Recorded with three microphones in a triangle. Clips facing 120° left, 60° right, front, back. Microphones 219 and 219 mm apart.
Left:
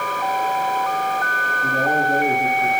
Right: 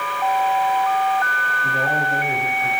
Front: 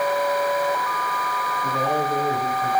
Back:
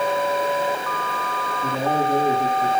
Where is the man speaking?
160° left, 3 m; by 2.7 s 145° left, 3 m.